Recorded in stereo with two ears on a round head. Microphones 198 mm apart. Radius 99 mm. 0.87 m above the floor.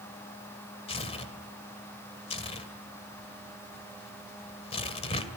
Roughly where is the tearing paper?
Left.